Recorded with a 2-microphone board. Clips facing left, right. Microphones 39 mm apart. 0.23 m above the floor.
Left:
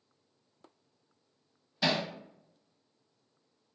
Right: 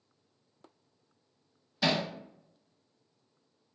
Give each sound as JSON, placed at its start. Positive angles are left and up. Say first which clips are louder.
{"t": 1.8, "sound": "hammering", "louder": "right 1 dB", "side_deg": 0, "distance_m": 0.6}